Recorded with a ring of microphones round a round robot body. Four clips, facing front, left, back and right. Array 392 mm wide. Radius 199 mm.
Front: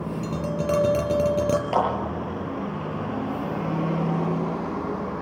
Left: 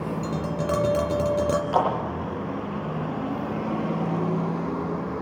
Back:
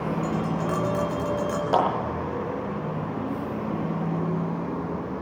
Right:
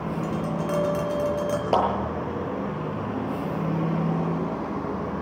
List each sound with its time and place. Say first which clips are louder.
0.2 s tapping: even, even; 35° left, 3.5 m
1.7 s a clap: right 2 dB, back 3 dB; 100° right, 7.5 m